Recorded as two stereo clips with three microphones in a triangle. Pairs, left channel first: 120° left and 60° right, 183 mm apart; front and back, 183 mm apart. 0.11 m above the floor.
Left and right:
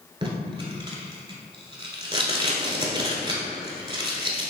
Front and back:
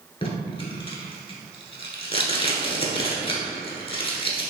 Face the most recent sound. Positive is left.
turn(degrees=-25)